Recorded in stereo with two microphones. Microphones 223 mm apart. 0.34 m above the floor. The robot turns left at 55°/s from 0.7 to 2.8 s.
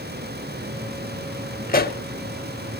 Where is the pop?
40° left (ahead or behind), 0.6 m; by 2.0 s 50° left (ahead or behind), 0.6 m.